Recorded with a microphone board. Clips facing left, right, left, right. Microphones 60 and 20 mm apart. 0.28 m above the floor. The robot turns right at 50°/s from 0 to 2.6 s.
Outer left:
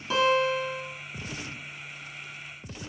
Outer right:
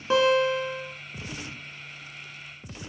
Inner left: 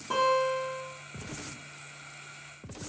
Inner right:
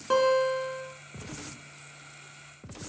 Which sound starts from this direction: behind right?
A guitar, at 0.1 s.